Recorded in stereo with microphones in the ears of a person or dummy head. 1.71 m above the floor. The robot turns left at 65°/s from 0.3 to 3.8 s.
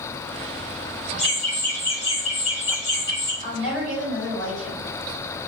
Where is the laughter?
Centre (ahead or behind), 0.6 m; by 3.3 s 10° left (ahead or behind), 0.6 m.